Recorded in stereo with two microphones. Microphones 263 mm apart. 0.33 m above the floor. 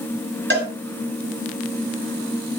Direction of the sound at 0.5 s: 40° right (ahead or behind).